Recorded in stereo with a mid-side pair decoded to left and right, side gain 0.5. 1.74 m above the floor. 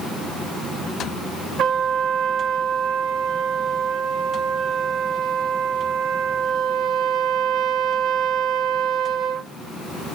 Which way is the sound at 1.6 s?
60° right.